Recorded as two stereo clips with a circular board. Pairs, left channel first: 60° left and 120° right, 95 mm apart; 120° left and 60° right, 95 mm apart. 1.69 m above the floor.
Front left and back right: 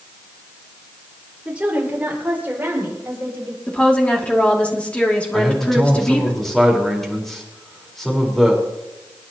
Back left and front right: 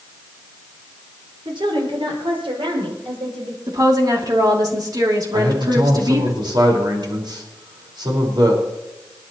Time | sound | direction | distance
1.4 | a woman speaking | 45° right | 5 m
3.7 | a woman speaking | 15° right | 2.5 m
5.3 | a man speaking | 25° right | 4.5 m